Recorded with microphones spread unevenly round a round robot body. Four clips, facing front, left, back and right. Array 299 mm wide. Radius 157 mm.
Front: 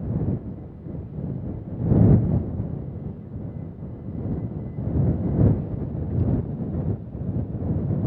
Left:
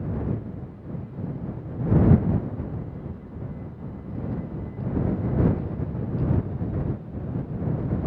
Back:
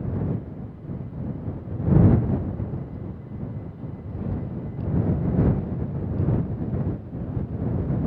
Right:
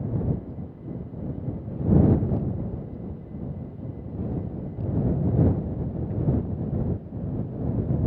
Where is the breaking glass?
No breaking glass in this recording.